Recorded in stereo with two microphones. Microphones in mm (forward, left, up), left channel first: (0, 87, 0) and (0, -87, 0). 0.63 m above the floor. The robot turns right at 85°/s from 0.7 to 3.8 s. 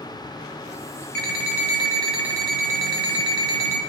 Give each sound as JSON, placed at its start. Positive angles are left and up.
{"t": 1.1, "sound": "an alarm clock", "azimuth_deg": 95, "distance_m": 1.7}